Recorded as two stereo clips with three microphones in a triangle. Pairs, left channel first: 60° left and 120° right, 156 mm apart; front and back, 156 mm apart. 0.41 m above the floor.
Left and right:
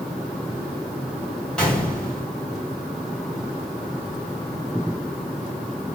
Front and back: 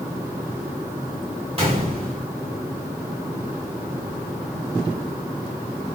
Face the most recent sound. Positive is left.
turn(degrees=145)